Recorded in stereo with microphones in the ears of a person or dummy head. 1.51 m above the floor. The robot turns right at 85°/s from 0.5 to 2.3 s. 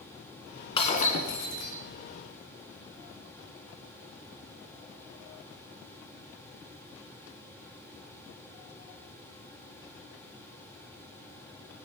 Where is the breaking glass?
40° left, 2 m; by 1.8 s 125° left, 2 m.